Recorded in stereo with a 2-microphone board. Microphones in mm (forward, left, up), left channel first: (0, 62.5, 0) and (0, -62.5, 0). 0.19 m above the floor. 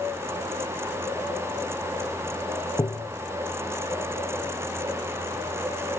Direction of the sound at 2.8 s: 30° left (ahead or behind).